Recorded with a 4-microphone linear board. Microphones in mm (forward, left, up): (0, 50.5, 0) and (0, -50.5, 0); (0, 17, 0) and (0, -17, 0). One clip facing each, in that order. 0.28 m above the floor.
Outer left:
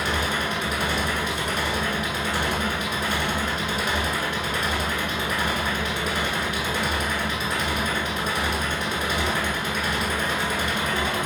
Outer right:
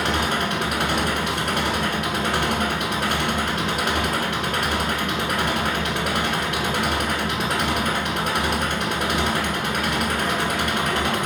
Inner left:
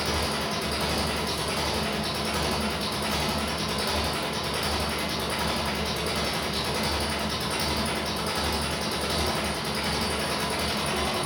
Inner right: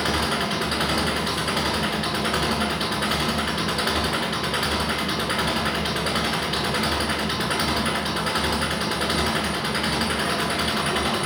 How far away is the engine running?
About 1.0 m.